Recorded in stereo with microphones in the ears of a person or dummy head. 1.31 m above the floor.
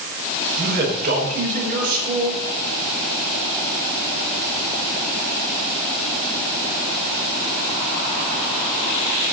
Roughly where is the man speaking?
Right.